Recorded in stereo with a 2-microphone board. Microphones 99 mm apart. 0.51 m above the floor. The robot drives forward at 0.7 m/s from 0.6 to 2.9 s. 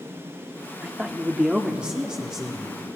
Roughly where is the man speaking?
Centre.